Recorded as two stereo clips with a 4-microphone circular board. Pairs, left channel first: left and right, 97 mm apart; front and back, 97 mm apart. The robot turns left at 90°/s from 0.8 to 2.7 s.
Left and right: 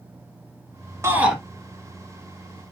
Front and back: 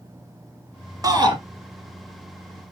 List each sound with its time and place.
1.0 s a shout: 145° right, 2.0 m; by 1.4 s 175° right, 2.0 m